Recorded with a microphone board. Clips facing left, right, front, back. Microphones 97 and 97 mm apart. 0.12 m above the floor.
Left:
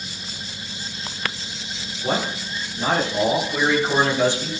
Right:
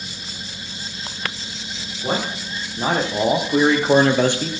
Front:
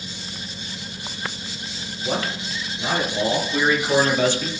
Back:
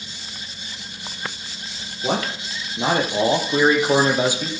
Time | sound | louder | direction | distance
2.0 | a man speaking | even, back 2 dB | 165° right | 4 m